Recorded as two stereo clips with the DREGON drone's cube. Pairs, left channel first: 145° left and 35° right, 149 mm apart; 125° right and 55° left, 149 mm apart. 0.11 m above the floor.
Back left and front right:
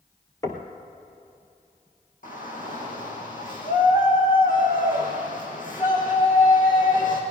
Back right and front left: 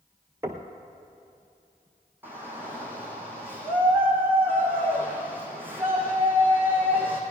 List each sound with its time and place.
0.4 s knocking: 100° left, 1.0 m
2.2 s a shout: 130° left, 4 m